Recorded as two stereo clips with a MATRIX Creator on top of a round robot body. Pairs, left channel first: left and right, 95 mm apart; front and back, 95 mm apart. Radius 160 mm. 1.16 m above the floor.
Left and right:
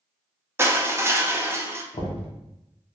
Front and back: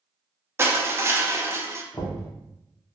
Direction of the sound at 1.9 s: 60° left.